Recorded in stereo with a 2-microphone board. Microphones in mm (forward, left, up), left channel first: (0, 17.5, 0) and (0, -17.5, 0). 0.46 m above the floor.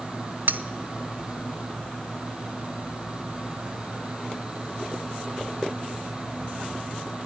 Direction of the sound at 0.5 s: 70° right (ahead or behind).